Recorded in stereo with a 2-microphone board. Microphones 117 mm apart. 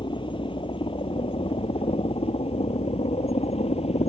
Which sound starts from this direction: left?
A helicopter, at 0.0 s.